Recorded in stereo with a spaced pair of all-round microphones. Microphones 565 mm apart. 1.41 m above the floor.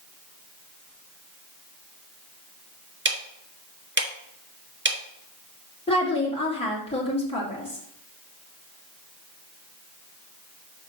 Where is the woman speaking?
10° left (ahead or behind), 2.5 m.